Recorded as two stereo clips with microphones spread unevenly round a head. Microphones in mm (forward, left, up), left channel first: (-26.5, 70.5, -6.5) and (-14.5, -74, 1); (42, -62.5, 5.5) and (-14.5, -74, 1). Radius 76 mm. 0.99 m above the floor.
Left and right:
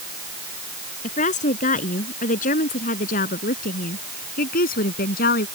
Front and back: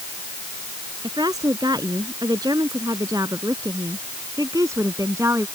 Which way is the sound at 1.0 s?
135° left.